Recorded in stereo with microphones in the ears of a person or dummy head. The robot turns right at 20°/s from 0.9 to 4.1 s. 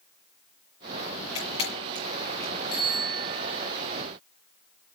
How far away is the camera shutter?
About 7 m.